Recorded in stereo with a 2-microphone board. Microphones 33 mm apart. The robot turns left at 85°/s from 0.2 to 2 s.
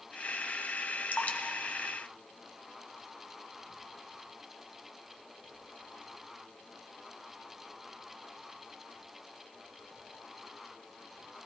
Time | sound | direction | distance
1.1 | dripping | 60° left (ahead or behind) | 1.2 m